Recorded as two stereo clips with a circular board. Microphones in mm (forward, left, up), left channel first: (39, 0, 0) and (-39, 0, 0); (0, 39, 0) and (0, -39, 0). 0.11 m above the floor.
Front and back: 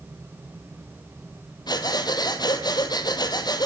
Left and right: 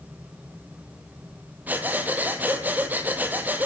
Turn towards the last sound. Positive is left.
turn(degrees=-25)